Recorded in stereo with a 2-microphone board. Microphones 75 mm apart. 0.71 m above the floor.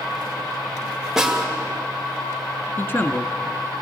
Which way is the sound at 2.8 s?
30° left (ahead or behind).